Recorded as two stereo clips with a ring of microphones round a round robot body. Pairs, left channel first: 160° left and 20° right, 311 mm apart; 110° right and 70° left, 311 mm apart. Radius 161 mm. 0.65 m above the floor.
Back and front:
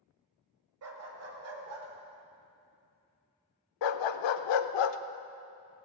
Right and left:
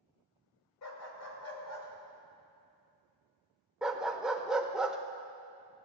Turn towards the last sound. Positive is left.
turn(degrees=155)